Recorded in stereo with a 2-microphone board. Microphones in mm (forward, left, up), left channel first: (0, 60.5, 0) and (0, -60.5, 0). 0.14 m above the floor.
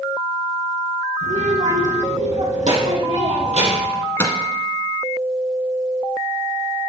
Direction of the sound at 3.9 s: 20° left (ahead or behind).